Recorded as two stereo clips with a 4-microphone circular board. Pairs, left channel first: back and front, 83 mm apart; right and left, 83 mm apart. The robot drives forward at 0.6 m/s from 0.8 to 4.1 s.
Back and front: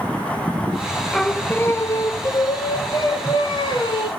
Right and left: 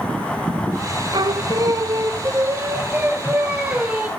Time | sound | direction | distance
1.1 | singing | 90° left | 0.5 m